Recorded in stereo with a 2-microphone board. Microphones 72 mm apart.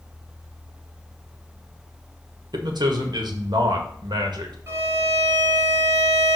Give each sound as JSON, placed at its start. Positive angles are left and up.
{"t": 2.5, "sound": "a man speaking", "side_deg": -80, "distance_m": 1.7}
{"t": 4.7, "sound": "a violin", "side_deg": -45, "distance_m": 3.0}